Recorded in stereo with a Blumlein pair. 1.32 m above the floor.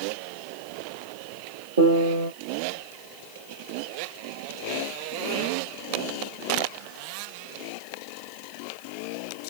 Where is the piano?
65° right, 1.4 m.